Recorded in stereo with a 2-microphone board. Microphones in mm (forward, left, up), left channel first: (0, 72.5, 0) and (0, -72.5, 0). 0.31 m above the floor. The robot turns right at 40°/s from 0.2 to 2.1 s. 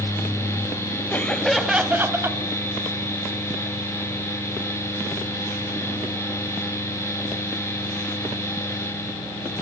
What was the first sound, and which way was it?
Laughter, 160° left.